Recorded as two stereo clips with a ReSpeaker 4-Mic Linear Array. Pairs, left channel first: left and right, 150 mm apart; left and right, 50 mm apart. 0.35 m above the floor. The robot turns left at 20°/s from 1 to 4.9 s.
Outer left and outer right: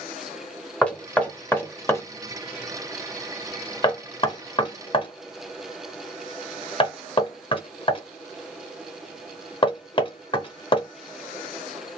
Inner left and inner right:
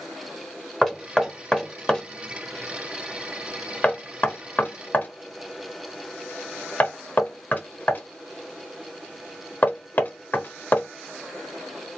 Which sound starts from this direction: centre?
Knocking, at 0.8 s.